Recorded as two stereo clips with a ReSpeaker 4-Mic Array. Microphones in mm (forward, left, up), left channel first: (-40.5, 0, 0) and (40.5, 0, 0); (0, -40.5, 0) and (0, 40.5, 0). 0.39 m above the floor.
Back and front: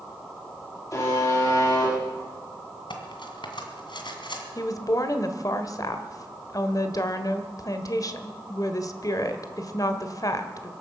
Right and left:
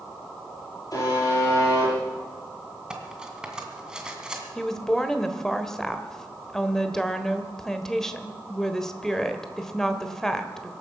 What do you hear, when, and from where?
0.9 s a buzzer: 135° right, 8.5 m
2.9 s cutlery clinking: 170° left, 2 m
4.5 s a woman speaking: 170° right, 1.3 m